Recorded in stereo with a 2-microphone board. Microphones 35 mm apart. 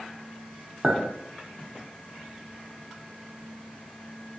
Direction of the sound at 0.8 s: 15° right (ahead or behind).